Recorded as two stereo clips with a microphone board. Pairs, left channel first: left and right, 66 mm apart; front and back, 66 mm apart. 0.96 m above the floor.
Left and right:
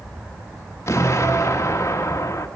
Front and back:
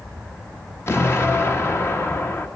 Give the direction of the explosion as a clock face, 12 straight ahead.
10 o'clock.